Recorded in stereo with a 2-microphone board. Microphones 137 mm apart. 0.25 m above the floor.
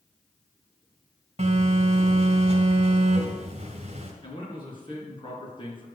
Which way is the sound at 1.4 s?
50° right (ahead or behind).